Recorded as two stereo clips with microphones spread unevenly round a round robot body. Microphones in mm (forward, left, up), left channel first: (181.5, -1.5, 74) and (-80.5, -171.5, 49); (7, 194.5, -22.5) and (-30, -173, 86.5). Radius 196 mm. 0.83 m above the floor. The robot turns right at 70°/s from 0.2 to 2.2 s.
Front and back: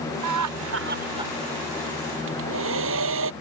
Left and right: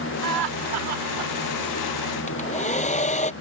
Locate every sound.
0.2 s laughter: 140° right; by 1.3 s 65° right
2.3 s a hair dryer: 155° left